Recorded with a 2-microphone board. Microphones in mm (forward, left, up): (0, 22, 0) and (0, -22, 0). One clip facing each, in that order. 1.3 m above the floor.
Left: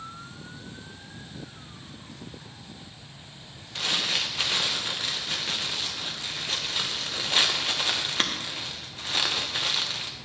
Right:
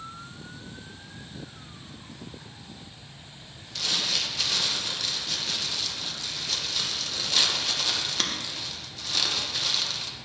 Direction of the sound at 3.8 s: 30° left (ahead or behind).